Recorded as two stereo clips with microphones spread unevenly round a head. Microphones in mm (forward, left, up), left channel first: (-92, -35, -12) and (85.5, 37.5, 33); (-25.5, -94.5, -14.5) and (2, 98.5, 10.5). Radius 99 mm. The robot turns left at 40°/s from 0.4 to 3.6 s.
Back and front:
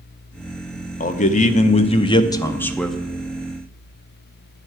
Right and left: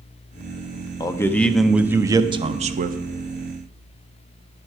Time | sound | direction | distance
1.0 | a man speaking | 160° right | 0.6 m